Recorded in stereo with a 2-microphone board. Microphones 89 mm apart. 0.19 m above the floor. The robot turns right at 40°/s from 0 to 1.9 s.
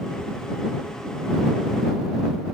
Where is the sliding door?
No sliding door in this recording.